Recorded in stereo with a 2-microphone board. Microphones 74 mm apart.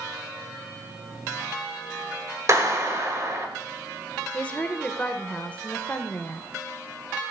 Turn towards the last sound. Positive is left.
turn(degrees=20)  # may be behind; listen again after turning